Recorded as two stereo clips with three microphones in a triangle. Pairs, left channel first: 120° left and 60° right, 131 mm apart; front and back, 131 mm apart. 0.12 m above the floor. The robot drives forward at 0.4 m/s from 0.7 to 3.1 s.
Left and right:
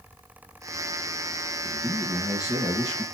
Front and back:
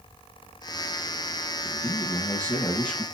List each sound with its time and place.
1.6 s a man speaking: 50° left, 2.0 m; by 3.0 s 75° left, 1.8 m